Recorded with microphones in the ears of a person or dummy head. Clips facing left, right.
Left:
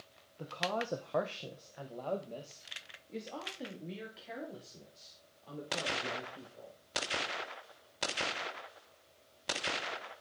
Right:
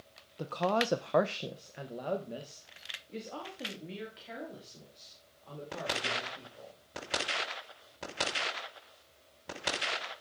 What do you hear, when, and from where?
0.4 s a woman speaking: 60° right (ahead or behind), 0.7 m; by 6.8 s 5° left (ahead or behind), 4.5 m